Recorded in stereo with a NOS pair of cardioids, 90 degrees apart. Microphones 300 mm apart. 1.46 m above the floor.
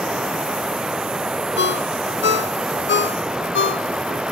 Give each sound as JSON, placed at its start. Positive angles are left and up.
{"t": 0.0, "sound": "running water", "azimuth_deg": -5}
{"t": 1.6, "sound": "a ringtone", "azimuth_deg": 40}